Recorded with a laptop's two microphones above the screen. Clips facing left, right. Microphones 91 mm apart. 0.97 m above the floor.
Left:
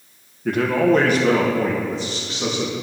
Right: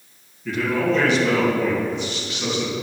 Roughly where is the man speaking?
Left.